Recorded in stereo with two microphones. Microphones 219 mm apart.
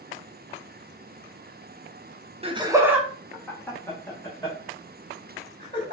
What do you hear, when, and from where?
2.4 s laughter: 25° right (ahead or behind), 0.7 m; by 5.9 s 25° left (ahead or behind), 3 m